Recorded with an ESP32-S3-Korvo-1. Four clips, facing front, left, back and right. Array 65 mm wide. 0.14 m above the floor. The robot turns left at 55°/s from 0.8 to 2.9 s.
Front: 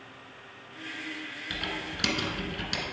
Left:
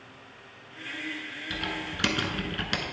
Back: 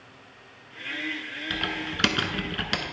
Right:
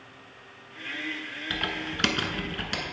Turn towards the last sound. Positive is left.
turn(degrees=150)